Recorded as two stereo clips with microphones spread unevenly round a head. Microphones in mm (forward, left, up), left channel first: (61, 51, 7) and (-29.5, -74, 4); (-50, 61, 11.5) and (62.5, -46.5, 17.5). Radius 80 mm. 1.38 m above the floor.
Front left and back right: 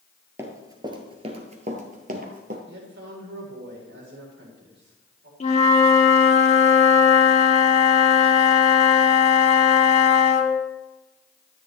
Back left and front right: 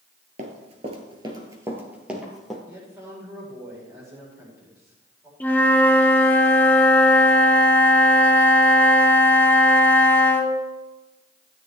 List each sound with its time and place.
0.4 s running footsteps: 55° right, 1.8 m; by 2.6 s 135° right, 2 m
2.7 s a man speaking: 115° right, 4.5 m
5.4 s a flute: 60° left, 1.1 m